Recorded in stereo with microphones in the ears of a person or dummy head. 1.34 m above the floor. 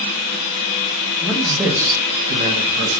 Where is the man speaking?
10° left (ahead or behind), 0.9 m; by 3.0 s 55° right (ahead or behind), 0.9 m.